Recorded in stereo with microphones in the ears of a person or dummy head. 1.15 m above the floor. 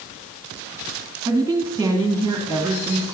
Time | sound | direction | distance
1.2 | a woman speaking | 5° right (ahead or behind) | 1.8 m